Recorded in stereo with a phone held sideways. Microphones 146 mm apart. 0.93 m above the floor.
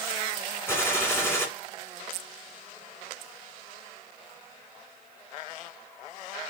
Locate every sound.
0.7 s a gunshot: 20° left (ahead or behind), 1.4 m